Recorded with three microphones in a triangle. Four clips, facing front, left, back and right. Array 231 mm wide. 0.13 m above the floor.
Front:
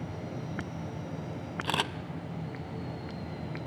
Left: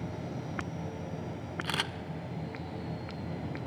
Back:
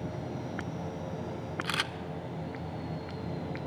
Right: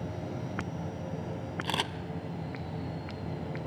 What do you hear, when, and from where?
1.6 s a camera shutter: 35° right, 0.7 m